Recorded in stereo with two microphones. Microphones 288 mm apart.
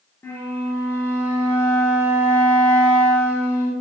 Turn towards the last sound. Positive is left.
turn(degrees=5)  # may be behind; listen again after turning